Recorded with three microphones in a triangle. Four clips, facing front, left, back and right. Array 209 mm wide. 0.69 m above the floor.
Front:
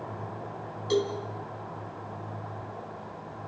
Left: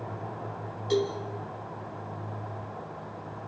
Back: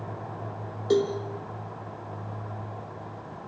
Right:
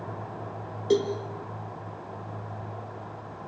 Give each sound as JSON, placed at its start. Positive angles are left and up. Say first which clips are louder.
{"t": 0.9, "sound": "a cowbell", "louder": "right 3 dB, back 4 dB", "azimuth_deg": -125, "distance_m": 3.0}